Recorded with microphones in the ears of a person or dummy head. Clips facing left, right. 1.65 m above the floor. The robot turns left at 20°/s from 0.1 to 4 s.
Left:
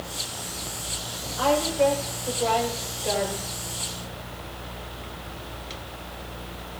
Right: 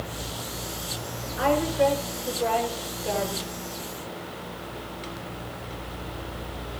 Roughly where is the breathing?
No breathing in this recording.